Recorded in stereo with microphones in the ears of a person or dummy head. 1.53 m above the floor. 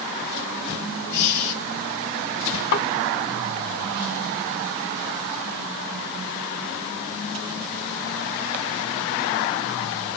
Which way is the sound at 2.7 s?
55° left (ahead or behind).